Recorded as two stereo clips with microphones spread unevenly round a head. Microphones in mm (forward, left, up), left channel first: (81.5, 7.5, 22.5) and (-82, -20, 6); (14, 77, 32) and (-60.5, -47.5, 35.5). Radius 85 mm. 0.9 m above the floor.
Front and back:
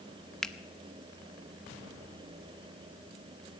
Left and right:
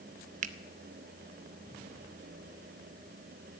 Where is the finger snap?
80° right, 0.6 m.